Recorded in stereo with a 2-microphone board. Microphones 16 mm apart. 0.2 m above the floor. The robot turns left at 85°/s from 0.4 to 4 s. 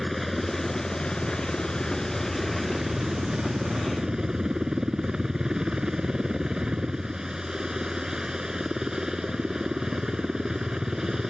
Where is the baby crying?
No baby crying in this recording.